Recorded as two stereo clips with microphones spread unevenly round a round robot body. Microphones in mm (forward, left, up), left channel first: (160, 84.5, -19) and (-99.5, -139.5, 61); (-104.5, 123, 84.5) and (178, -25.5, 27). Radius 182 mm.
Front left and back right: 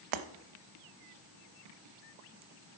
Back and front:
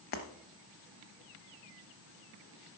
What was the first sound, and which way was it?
Breaking glass, 150° right.